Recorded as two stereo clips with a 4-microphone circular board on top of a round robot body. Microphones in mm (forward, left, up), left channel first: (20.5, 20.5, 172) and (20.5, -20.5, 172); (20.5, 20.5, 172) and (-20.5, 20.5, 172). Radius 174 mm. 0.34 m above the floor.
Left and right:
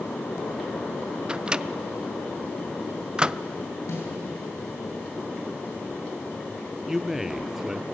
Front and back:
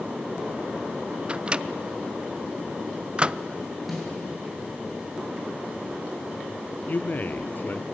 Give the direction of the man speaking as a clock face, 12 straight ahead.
12 o'clock.